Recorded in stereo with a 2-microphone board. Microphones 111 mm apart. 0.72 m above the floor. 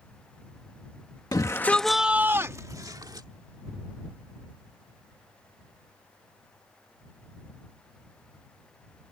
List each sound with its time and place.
1.3 s a shout: 35° left (ahead or behind); by 3.3 s 40° right (ahead or behind)